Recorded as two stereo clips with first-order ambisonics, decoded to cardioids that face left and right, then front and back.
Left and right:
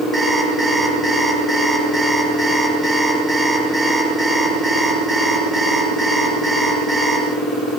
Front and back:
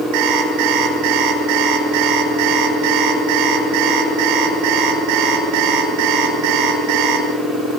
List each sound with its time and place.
0.1 s an alarm clock: straight behind, 7 m